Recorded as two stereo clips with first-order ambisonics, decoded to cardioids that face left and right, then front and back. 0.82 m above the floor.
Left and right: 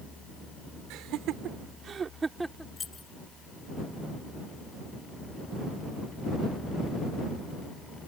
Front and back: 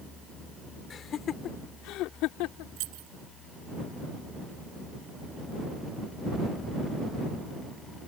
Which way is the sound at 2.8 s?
165° left.